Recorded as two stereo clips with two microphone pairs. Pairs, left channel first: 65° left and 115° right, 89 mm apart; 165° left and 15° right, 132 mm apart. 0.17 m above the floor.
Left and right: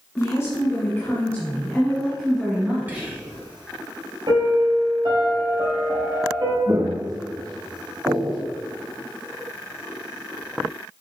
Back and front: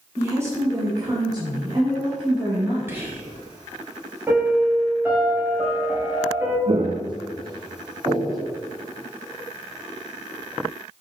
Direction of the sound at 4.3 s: 85° right.